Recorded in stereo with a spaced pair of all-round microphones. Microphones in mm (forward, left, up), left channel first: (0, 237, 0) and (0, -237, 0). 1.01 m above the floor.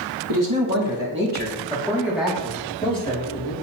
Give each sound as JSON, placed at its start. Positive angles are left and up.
{"t": 0.3, "sound": "a man speaking", "side_deg": -45, "distance_m": 2.0}